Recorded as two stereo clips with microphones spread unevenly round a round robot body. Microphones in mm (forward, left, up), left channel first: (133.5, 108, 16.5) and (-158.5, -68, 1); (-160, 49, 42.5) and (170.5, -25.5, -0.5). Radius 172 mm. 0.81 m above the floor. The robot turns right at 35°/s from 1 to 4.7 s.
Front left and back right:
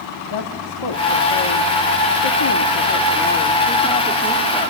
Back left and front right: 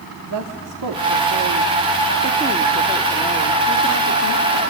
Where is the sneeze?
No sneeze in this recording.